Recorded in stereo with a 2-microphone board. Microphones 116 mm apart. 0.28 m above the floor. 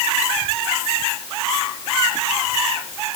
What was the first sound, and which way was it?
Only background noise.